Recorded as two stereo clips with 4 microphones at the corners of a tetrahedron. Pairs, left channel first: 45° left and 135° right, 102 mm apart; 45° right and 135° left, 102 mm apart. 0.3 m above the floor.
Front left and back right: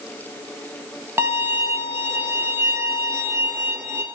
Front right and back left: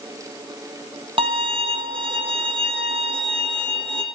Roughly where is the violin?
Behind.